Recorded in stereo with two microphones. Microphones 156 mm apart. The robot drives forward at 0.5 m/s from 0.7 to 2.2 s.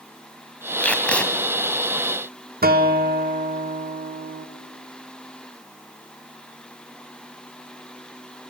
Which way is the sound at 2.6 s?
75° right (ahead or behind).